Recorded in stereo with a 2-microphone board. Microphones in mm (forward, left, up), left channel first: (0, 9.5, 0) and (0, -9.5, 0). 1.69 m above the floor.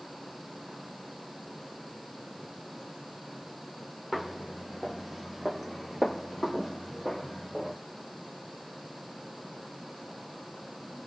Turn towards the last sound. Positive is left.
turn(degrees=0)  # may be behind; listen again after turning